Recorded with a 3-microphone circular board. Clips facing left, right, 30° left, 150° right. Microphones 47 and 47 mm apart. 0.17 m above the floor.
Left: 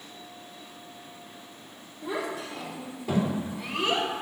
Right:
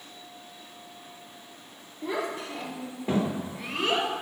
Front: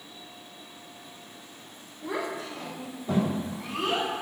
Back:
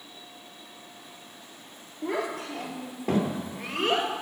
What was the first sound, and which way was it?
A child speaking, 140° right.